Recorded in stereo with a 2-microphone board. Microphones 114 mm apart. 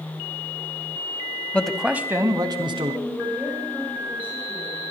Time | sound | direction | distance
1.5 | a man speaking | 10° left (ahead or behind) | 1.2 m
3.0 | a woman speaking | 15° right (ahead or behind) | 10 m